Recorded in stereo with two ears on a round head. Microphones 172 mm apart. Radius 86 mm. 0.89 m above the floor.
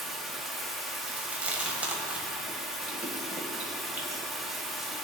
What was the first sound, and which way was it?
Running water, centre (ahead or behind).